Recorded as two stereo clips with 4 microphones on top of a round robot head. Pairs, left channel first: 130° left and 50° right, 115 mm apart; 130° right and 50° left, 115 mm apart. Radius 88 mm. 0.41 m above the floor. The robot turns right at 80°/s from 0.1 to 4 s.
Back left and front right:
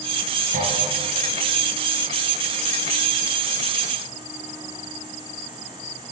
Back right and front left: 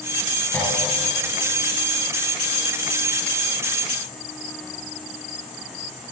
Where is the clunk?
55° right, 5.5 m; by 0.7 s 40° right, 5.5 m.